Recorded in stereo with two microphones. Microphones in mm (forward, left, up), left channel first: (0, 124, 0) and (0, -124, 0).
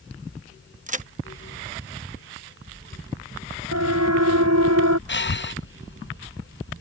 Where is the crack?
30° right (ahead or behind).